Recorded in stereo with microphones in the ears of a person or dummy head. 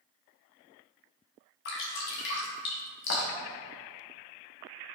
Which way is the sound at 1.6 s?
60° left (ahead or behind).